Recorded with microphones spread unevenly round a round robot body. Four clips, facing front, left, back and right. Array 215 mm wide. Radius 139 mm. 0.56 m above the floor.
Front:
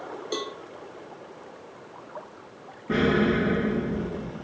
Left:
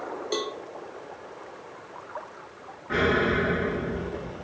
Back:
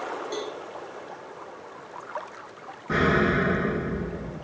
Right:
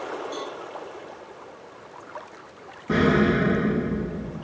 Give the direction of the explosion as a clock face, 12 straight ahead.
2 o'clock.